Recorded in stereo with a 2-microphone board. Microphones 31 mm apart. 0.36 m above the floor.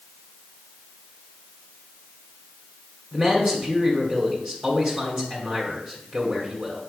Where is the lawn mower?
No lawn mower in this recording.